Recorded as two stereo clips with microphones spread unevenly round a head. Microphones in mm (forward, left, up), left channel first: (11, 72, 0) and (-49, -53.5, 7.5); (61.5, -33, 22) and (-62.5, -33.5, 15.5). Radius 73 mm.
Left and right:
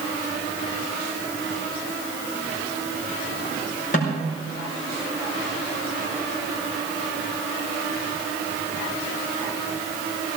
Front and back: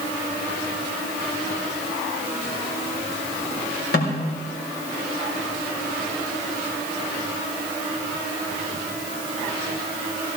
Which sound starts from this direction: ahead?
A snare drum, at 3.9 s.